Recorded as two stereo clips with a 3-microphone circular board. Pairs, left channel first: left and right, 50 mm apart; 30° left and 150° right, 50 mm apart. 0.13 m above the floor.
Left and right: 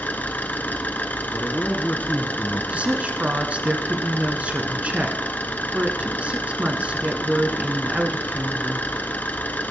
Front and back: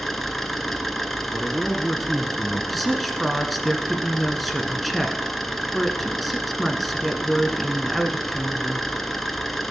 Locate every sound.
0.0 s an engine running: 115° left, 1.0 m
1.3 s a man speaking: 120° left, 1.4 m
2.7 s a woman speaking: 60° right, 1.2 m